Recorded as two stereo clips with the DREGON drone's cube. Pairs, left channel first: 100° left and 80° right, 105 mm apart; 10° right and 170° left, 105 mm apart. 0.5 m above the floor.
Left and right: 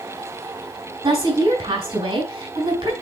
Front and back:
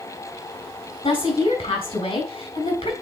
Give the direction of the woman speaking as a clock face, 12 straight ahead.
2 o'clock.